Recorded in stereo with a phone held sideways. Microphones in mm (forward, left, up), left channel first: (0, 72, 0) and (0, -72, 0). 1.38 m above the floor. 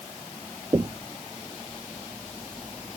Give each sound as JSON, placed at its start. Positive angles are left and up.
{"t": 0.7, "sound": "knocking", "side_deg": -25}